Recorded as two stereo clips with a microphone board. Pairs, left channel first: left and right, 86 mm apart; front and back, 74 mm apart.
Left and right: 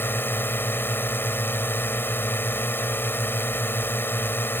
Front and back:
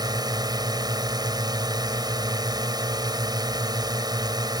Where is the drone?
155° left.